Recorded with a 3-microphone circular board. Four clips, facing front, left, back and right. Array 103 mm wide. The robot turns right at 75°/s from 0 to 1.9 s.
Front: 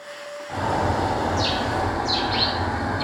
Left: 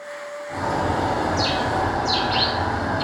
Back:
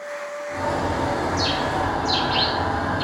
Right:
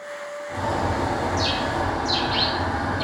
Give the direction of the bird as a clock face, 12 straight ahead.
12 o'clock.